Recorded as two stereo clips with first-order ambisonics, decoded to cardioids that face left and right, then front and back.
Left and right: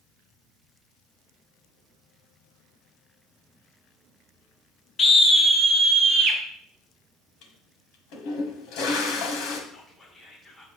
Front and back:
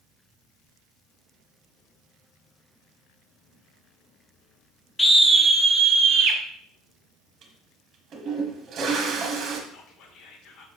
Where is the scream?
65° left, 0.7 m; by 6.4 s 160° right, 1.1 m.